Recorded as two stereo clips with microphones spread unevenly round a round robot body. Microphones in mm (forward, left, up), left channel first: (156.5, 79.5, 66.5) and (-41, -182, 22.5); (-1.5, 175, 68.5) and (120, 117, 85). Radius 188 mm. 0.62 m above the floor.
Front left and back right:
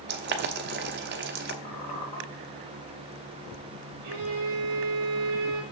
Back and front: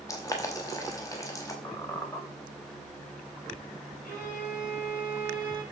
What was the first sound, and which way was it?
Boiling, 160° right.